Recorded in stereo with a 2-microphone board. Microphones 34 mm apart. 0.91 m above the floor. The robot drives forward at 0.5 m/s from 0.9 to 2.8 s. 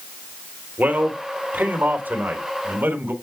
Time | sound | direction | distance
0.8 | a man speaking | 65° right (ahead or behind) | 3 m